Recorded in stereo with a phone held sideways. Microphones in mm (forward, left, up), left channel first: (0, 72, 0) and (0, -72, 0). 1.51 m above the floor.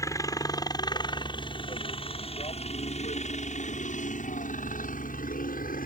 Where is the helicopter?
25° left (ahead or behind); by 5.9 s 75° left (ahead or behind).